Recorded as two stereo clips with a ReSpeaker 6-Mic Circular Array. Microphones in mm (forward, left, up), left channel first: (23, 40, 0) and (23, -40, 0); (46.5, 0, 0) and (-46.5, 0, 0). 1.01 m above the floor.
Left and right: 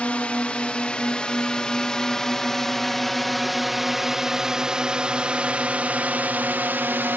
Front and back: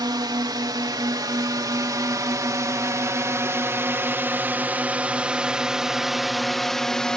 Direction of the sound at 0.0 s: 160° left.